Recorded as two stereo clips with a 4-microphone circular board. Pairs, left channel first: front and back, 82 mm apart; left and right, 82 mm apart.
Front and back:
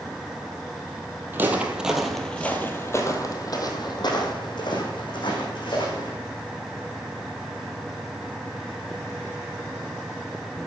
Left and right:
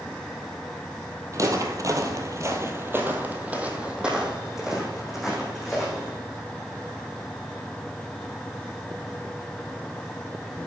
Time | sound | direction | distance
1.3 | footsteps | 125° right | 1.8 m